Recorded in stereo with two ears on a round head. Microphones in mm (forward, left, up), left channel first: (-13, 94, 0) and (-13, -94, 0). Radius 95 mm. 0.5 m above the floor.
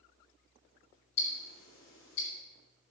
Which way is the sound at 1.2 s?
60° left (ahead or behind).